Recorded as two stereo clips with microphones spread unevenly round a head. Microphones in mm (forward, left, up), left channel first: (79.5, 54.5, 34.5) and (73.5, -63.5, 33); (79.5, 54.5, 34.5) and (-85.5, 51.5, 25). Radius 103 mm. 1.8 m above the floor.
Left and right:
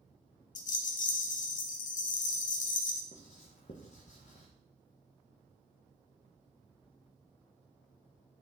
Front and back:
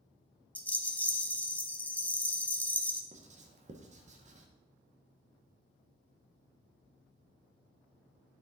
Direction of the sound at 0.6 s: 80° left.